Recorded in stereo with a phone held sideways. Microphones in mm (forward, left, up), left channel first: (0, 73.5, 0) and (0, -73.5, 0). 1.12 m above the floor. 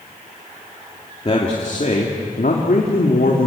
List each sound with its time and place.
1.2 s a man speaking: 40° left (ahead or behind), 2.5 m; by 3.5 s 85° left, 3 m